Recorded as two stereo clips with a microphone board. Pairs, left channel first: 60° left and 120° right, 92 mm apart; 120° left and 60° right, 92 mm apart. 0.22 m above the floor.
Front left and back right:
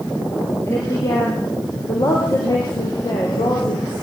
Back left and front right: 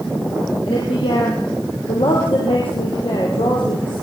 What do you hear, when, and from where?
0.7 s a woman speaking: 120° left, 7 m; by 4.0 s 95° left, 7.5 m